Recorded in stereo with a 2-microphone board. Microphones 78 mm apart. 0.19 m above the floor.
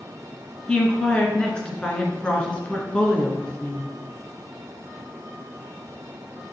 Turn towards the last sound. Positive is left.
turn(degrees=15)  # may be behind; listen again after turning